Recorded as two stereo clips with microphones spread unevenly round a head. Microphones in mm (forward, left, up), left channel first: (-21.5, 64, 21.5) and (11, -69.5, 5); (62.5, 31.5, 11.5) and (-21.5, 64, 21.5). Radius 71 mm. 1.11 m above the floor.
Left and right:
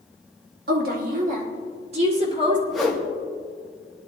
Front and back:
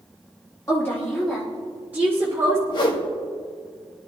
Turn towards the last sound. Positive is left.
turn(degrees=15)